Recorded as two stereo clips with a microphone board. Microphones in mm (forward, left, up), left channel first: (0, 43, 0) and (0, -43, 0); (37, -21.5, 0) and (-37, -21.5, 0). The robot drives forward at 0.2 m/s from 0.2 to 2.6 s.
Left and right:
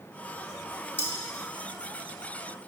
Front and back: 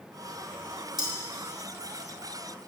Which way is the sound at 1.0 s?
150° left.